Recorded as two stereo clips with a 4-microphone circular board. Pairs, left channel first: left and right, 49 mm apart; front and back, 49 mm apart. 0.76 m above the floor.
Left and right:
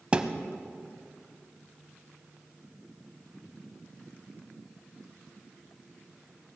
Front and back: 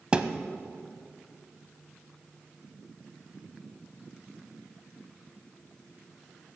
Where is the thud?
130° right, 0.6 m.